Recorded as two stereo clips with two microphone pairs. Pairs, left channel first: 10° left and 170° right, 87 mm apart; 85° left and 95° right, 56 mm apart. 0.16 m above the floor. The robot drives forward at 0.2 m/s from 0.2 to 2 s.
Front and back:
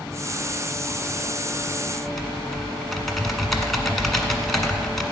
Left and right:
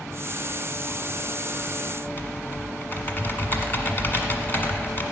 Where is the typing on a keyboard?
95° left, 1.5 m.